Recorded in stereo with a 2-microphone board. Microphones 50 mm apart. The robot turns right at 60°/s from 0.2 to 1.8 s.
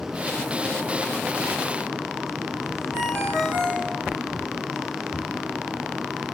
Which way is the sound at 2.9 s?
50° right (ahead or behind).